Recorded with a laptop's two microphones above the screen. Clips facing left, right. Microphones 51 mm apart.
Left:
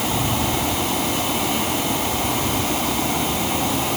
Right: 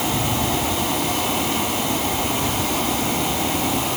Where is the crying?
I don't hear crying.